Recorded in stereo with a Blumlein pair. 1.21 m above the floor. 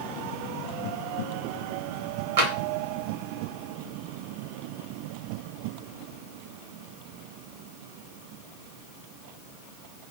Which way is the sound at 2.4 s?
55° right.